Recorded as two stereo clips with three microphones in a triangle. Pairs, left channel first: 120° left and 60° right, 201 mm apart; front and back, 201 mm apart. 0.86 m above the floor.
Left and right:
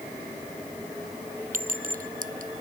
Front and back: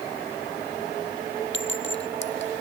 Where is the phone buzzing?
I don't hear a phone buzzing.